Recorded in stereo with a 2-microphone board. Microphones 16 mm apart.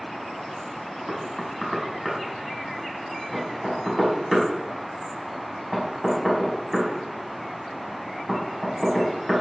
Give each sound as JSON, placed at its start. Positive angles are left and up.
{"t": 1.1, "sound": "knocking", "side_deg": -10, "distance_m": 5.0}